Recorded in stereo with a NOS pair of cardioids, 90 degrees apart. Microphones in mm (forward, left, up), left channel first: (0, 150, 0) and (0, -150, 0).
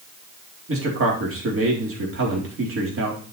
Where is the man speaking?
45° right, 4 m.